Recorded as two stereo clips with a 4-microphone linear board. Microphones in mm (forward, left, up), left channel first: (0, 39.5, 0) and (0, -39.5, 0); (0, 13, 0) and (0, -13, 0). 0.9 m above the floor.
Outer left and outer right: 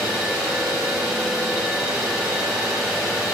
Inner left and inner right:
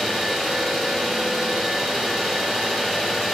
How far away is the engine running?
About 0.7 m.